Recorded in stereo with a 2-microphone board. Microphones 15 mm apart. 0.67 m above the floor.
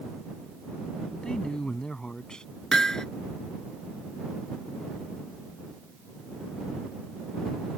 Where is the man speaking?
60° left (ahead or behind).